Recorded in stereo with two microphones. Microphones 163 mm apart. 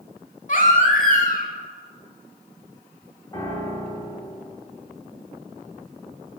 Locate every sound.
0.5 s a baby crying: 55° left (ahead or behind), 0.6 m
3.3 s a piano: 20° left (ahead or behind), 1.2 m